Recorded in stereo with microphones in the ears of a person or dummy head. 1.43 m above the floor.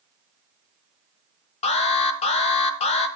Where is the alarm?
35° left (ahead or behind), 1.3 m.